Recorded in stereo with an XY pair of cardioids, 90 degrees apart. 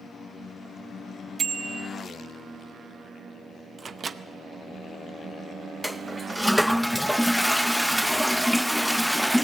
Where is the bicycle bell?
45° right, 2.5 m.